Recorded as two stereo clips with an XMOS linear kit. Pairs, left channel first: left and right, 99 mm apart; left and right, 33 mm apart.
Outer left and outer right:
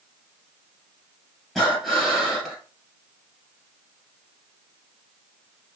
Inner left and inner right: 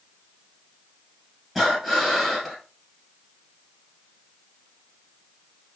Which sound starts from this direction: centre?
Breathing, at 1.6 s.